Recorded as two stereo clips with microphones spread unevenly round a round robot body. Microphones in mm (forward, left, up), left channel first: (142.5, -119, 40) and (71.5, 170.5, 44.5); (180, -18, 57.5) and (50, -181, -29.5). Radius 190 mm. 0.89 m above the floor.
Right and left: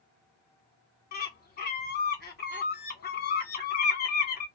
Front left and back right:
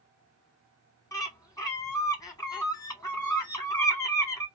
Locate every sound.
1.1 s a bird: 45° right, 1.0 m